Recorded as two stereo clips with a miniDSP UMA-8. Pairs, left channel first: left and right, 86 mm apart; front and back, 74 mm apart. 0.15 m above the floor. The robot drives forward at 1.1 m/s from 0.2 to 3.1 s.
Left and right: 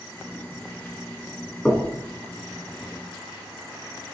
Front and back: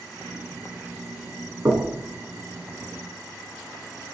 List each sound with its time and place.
1.6 s knocking: 165° left, 1.2 m; by 1.9 s 170° left, 1.4 m